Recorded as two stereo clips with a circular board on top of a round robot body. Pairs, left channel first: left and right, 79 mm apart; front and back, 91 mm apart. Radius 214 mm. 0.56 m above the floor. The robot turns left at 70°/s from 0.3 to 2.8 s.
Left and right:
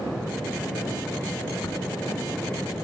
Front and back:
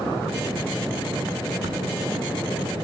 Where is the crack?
140° left, 0.9 m; by 1.8 s 130° left, 0.9 m.